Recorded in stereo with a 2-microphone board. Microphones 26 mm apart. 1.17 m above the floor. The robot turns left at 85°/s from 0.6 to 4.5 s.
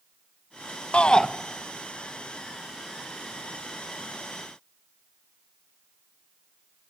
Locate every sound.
0.9 s a shout: 50° left (ahead or behind), 1.0 m; by 1.3 s 20° left (ahead or behind), 1.0 m